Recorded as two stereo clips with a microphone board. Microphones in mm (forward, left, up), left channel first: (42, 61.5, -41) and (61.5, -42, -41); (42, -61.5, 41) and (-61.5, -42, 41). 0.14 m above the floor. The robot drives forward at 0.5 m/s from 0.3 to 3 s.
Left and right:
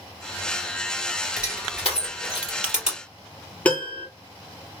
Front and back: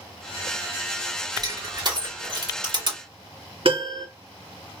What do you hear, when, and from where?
1.4 s crushing: 155° right, 2.5 m; by 3.0 s 160° right, 3 m
3.6 s a piano: 175° left, 2 m